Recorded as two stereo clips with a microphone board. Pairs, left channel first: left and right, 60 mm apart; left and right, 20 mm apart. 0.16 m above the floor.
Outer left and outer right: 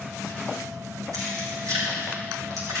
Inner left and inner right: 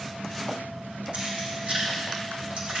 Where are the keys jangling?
70° right (ahead or behind), 5 m.